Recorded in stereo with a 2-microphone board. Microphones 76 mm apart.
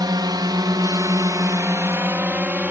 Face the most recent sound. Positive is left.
turn(degrees=-20)  # may be behind; listen again after turning